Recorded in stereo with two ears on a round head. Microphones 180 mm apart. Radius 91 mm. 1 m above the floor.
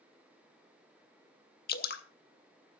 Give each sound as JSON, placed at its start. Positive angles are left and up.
{"t": 1.7, "sound": "dripping", "side_deg": 50, "distance_m": 1.0}